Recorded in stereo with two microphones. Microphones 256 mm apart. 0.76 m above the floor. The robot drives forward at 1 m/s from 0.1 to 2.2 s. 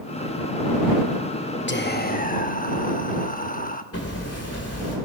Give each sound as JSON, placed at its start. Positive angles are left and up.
{"t": 1.7, "sound": "whispering", "side_deg": 45, "distance_m": 0.8}
{"t": 3.9, "sound": "hammering", "side_deg": 70, "distance_m": 2.5}